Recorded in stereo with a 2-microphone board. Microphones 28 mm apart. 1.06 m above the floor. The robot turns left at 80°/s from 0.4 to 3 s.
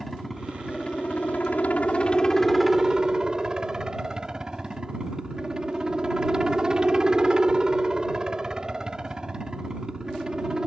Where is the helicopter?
Straight behind; by 10.7 s 30° right.